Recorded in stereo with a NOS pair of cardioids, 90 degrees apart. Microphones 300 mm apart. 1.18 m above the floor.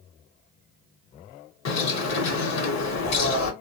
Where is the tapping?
I don't hear tapping.